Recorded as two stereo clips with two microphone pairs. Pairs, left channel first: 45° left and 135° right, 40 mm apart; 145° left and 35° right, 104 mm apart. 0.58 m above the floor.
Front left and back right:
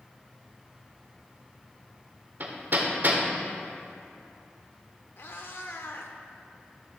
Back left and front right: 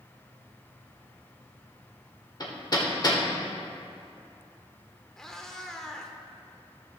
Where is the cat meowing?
60° left, 0.8 m.